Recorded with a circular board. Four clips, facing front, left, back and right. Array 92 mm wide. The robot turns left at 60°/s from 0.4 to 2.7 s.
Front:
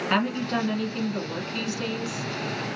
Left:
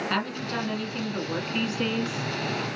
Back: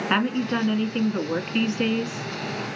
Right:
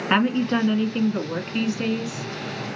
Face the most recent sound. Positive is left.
turn(degrees=110)